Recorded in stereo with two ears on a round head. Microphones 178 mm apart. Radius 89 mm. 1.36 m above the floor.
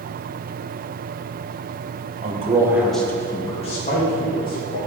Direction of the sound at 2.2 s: 40° right (ahead or behind).